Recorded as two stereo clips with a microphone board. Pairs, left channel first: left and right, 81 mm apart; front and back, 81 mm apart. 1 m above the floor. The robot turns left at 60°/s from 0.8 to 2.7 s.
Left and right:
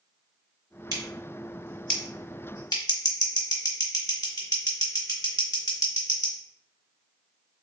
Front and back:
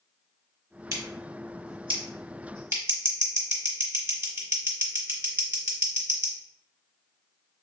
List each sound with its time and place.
0.9 s scissors: 130° right, 1.1 m; by 6.3 s 125° left, 1.1 m